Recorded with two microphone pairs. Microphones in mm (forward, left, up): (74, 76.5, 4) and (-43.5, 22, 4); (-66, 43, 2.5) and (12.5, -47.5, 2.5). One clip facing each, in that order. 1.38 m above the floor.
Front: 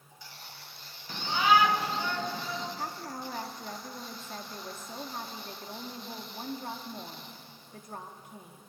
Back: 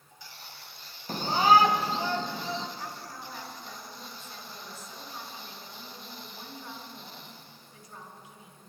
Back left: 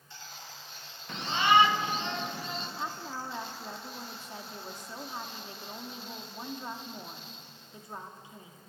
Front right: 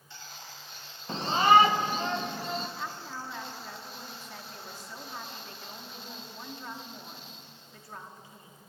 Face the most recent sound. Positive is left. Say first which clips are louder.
# front 3 dB, back left 1 dB
turn(degrees=60)